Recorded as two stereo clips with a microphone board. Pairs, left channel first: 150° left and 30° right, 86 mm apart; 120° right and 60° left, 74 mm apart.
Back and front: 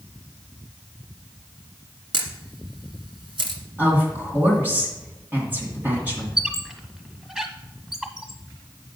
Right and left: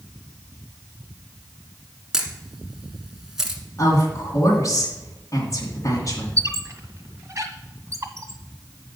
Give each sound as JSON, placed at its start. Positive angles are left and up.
{"t": 2.1, "sound": "a camera shutter", "azimuth_deg": -25, "distance_m": 1.3}
{"t": 3.8, "sound": "a woman speaking", "azimuth_deg": -95, "distance_m": 2.5}
{"t": 6.4, "sound": "a squeak", "azimuth_deg": 50, "distance_m": 1.2}